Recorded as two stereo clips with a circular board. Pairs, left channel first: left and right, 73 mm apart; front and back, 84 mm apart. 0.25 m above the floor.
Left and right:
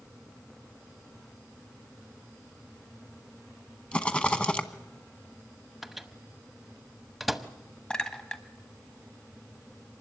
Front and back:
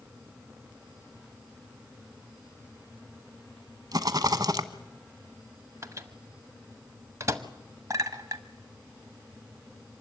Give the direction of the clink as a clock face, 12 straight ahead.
7 o'clock.